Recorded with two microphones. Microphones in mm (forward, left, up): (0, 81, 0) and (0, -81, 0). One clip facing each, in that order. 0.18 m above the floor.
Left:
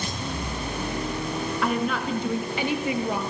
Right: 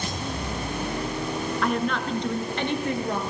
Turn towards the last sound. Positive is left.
turn(degrees=10)  # may be behind; listen again after turning